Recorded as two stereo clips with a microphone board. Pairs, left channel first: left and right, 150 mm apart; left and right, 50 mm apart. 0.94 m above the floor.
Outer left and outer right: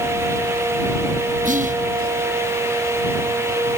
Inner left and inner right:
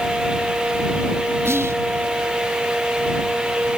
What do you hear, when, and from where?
1.4 s whispering: 60° right (ahead or behind)